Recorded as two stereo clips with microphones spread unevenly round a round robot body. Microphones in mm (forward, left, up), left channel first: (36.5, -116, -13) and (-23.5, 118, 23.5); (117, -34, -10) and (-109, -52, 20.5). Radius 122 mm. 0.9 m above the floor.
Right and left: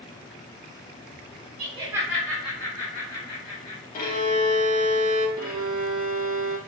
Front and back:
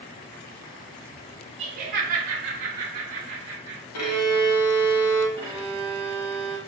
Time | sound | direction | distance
1.6 | laughter | 140° left | 0.6 m
3.9 | a violin | 15° right | 0.6 m
5.4 | a violin | 55° left | 0.9 m